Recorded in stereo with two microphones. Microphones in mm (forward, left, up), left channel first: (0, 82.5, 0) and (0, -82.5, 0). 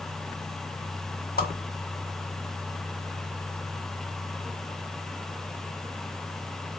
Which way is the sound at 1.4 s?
60° left (ahead or behind).